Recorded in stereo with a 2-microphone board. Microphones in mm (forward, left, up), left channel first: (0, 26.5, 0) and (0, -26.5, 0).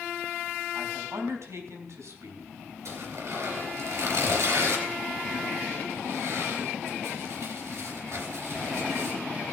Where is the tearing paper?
60° right (ahead or behind), 3.5 m.